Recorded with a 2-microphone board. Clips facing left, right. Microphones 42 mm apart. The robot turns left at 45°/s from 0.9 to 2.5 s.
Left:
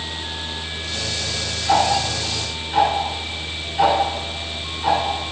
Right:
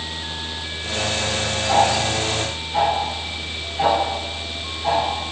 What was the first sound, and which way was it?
Ticking, 40° left (ahead or behind).